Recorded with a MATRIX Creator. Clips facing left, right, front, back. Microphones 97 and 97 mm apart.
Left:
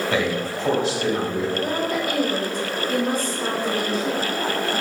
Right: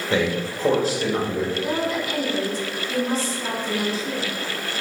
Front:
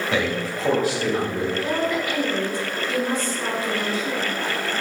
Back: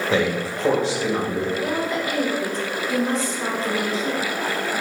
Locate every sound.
0.1 s a man speaking: 140° right, 1.7 m; by 1.4 s 115° right, 2.5 m
1.6 s a woman speaking: 120° left, 2.5 m